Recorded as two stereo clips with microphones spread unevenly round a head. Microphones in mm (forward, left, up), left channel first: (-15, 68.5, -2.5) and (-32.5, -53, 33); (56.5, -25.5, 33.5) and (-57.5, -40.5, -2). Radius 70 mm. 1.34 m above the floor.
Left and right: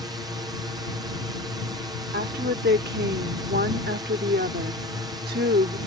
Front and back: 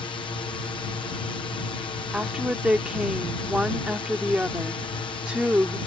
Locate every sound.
0.0 s a drone: 35° right
2.1 s a woman speaking: 85° right